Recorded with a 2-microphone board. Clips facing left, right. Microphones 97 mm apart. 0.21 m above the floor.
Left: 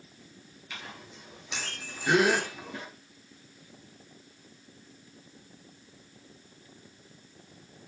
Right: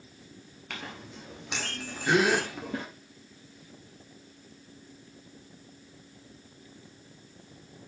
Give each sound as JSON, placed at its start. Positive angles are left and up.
{"t": 0.7, "sound": "a clink", "side_deg": -65, "distance_m": 2.5}
{"t": 2.1, "sound": "a gasp", "side_deg": 5, "distance_m": 2.0}